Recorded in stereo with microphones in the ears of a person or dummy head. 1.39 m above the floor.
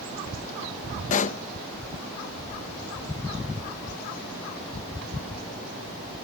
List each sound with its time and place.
1.1 s a pop: 40° left (ahead or behind)